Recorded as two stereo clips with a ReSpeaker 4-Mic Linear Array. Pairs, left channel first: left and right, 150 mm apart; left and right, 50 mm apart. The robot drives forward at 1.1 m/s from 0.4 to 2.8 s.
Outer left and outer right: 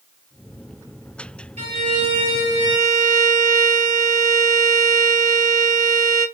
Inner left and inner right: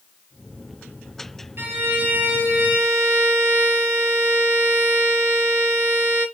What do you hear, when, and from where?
1.6 s a violin: 45° right (ahead or behind), 2 m; by 6.2 s 30° right (ahead or behind), 3 m